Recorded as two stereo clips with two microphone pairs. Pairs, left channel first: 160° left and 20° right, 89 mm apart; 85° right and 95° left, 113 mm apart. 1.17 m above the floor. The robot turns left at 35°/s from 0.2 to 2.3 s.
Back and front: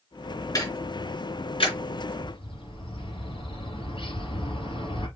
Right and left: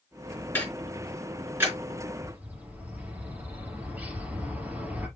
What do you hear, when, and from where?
0.6 s ticking: 155° right, 4.5 m; by 1.8 s 165° left, 4.5 m
2.2 s a bird: 175° left, 4 m; by 5.1 s 170° left, 4 m